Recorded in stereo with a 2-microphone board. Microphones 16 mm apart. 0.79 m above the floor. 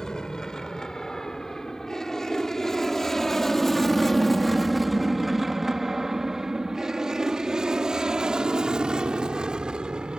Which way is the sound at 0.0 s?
45° left (ahead or behind).